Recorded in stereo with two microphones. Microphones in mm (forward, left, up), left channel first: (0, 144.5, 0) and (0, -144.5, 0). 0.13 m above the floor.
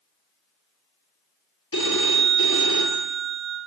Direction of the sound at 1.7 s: 50° left (ahead or behind).